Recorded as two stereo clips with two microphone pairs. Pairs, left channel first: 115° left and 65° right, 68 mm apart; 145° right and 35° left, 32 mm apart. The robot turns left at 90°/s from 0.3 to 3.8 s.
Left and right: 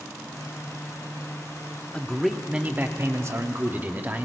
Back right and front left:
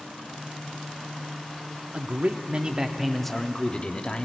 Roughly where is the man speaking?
Ahead left.